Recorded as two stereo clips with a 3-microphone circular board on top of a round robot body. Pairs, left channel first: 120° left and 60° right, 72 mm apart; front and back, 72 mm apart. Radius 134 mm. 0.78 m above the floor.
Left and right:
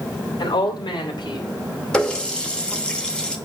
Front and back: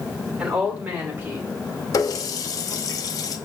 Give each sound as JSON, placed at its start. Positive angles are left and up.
{"t": 0.4, "sound": "a woman speaking", "azimuth_deg": 100, "distance_m": 2.5}
{"t": 1.9, "sound": "a running tap", "azimuth_deg": 40, "distance_m": 1.2}